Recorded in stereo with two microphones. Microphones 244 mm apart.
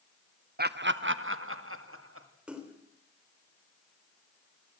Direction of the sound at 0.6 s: 40° right (ahead or behind).